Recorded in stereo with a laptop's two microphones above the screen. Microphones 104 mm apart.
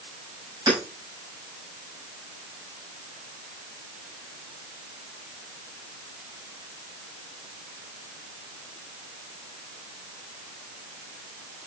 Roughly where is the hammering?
Right.